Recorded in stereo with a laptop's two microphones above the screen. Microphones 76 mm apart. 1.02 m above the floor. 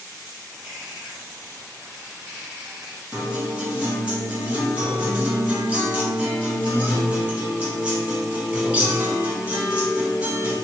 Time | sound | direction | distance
0.5 | a bird | 15° right (ahead or behind) | 1.8 m
3.1 | a guitar | 15° right (ahead or behind) | 0.8 m